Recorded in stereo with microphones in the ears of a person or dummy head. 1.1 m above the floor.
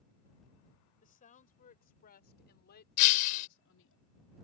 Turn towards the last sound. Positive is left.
turn(degrees=50)  # may be behind; listen again after turning